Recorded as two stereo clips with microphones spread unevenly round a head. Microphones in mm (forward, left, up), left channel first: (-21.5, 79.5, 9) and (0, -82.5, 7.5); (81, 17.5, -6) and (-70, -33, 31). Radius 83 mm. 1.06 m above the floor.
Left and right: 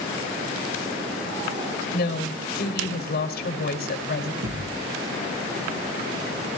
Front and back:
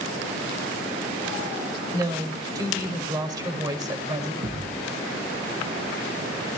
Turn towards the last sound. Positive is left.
turn(degrees=-105)